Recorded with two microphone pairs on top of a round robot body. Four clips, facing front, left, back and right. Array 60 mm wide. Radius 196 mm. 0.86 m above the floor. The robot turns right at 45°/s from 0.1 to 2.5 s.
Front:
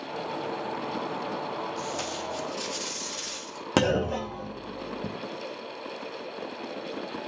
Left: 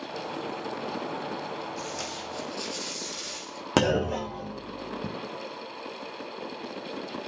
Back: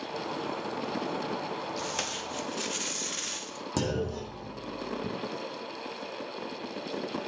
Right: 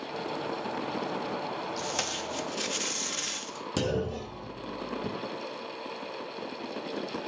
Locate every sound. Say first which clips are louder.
1.8 s tape being pulled: right 2 dB, front 2 dB; 150° right, 2.5 m; by 3.7 s 115° right, 2.5 m
3.8 s a clunk: left 7 dB, front 7 dB; 55° left, 0.5 m